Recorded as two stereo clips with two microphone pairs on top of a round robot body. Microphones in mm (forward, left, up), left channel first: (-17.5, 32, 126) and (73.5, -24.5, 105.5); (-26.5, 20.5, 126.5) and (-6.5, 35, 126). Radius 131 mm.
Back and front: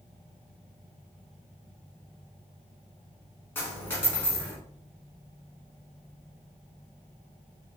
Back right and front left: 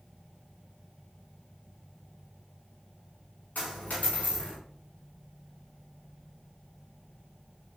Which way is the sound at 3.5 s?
145° right.